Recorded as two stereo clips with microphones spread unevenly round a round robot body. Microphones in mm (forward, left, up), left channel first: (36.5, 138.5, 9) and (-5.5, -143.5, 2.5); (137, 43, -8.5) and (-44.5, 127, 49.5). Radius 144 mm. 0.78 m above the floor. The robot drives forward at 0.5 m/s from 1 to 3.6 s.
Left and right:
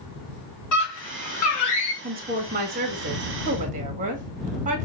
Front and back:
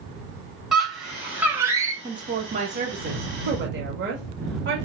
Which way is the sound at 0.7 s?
60° left.